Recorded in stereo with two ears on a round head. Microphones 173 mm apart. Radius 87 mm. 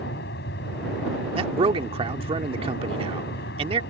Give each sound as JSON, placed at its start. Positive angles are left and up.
{"t": 0.0, "sound": "an aircraft", "side_deg": 55}
{"t": 1.4, "sound": "a man speaking", "side_deg": -30}